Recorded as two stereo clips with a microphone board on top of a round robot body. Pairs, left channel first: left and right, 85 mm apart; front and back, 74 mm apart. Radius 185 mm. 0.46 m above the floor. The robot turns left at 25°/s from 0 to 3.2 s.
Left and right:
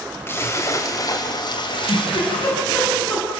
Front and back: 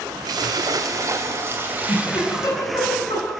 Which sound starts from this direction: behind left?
A splash, at 0.3 s.